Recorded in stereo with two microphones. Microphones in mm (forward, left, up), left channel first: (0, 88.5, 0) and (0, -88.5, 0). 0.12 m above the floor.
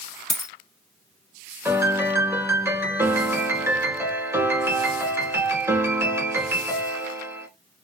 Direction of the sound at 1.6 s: 15° right (ahead or behind).